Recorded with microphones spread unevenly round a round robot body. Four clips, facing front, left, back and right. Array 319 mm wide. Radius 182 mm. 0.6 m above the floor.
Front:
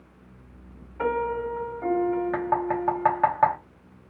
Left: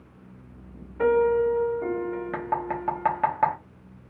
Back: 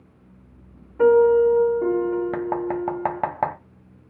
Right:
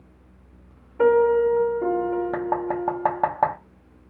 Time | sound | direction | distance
1.0 | a piano | 140° right | 1.6 m
2.3 | knocking | 120° right | 0.7 m